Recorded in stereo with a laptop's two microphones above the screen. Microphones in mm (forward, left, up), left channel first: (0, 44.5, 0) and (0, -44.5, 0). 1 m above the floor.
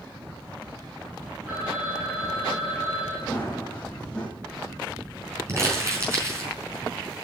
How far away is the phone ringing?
About 8 m.